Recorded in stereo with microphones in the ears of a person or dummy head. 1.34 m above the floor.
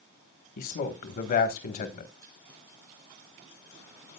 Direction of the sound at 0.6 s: 40° left (ahead or behind).